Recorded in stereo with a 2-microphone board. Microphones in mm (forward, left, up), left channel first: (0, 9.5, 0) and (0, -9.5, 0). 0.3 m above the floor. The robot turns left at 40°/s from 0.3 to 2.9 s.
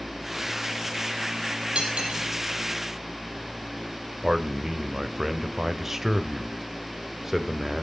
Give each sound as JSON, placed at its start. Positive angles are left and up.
{"t": 1.8, "sound": "cutlery clinking", "side_deg": -65, "distance_m": 5.0}
{"t": 4.2, "sound": "a man speaking", "side_deg": -25, "distance_m": 1.0}